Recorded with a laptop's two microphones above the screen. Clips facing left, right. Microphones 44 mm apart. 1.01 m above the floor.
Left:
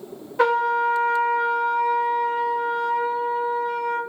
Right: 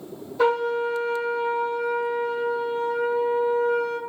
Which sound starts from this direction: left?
A trumpet, at 0.4 s.